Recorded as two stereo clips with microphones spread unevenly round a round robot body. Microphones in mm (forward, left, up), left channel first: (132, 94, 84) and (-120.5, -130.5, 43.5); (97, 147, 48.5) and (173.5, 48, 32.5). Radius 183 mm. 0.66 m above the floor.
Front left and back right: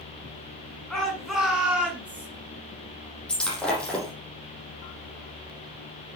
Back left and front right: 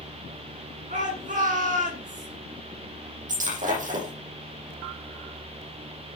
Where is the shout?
45° right, 7 m; by 2.3 s 55° right, 7 m.